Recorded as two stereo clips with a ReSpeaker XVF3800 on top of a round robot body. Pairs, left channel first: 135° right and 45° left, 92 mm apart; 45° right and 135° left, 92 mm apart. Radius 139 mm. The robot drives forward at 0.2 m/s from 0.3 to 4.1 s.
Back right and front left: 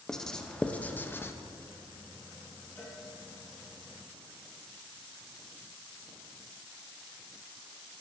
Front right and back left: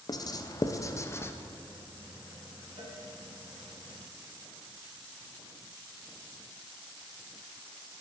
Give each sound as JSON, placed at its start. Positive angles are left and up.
{"t": 0.1, "sound": "writing", "azimuth_deg": -55, "distance_m": 0.6}
{"t": 2.8, "sound": "a cowbell", "azimuth_deg": 160, "distance_m": 1.1}